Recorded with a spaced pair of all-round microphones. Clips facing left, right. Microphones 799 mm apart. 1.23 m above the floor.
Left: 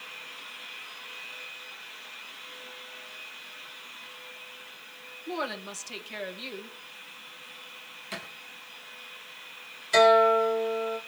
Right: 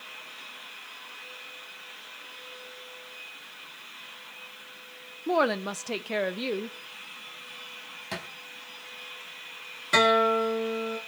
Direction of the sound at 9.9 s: 75° right (ahead or behind).